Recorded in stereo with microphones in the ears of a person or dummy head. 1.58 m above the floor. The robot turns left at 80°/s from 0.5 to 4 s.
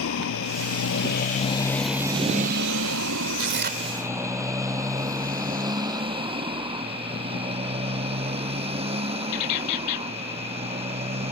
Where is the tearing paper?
100° right; by 3.9 s 140° right.